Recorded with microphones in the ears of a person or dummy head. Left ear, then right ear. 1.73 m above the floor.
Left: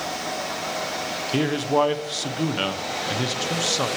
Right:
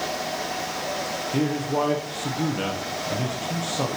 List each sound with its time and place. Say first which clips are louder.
1.3 s a man speaking: left 4 dB; 65° left (ahead or behind), 0.9 m